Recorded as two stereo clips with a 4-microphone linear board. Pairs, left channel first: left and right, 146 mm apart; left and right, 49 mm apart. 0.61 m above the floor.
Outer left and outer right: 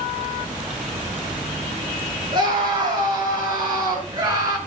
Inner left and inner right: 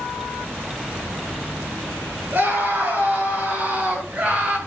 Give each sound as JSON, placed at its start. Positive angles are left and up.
{"t": 2.3, "sound": "a scream", "side_deg": -35, "distance_m": 7.5}